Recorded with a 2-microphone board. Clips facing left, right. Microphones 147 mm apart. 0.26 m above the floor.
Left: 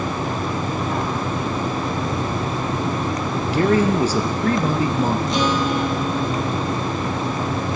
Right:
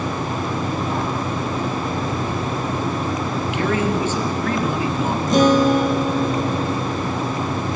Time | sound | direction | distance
3.5 | a man speaking | 40° left (ahead or behind) | 4 m
5.3 | a guitar | 50° right (ahead or behind) | 3 m